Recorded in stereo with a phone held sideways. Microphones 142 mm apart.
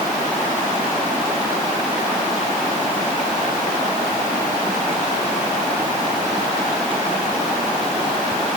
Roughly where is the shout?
I don't hear a shout.